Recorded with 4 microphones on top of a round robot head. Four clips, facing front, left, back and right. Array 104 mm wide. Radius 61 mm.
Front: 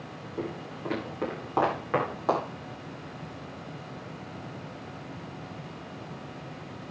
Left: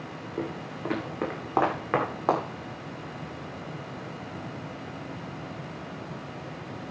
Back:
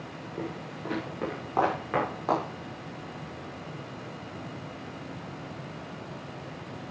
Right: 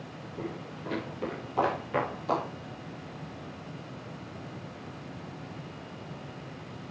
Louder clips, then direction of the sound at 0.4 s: Left 5 dB, front 2 dB; 90° left.